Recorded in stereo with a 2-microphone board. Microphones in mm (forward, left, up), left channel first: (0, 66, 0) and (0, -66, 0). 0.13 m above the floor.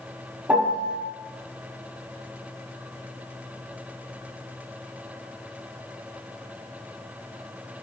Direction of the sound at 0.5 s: 15° right (ahead or behind).